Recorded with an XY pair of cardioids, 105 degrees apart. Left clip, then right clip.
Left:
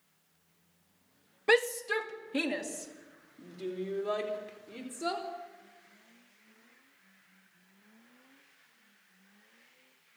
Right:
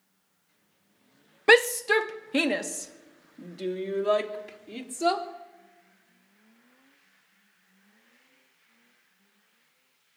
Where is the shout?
55° right, 0.6 m; by 5.2 s 80° right, 4 m.